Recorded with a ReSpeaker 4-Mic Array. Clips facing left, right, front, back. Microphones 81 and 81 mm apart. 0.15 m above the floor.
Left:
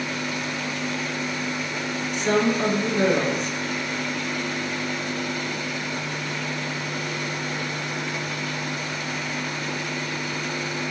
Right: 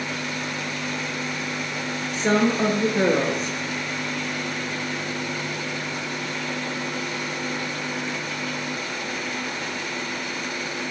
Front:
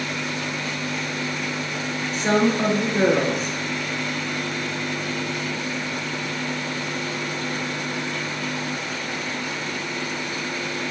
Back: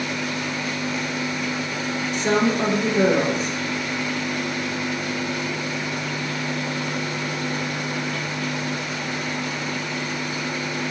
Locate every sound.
2.1 s a woman speaking: 45° right, 3 m